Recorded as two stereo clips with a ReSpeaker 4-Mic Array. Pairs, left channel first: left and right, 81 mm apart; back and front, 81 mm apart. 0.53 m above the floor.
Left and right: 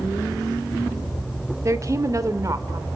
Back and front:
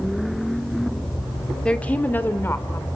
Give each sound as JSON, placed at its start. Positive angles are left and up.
{"t": 1.6, "sound": "a woman speaking", "azimuth_deg": -110, "distance_m": 1.7}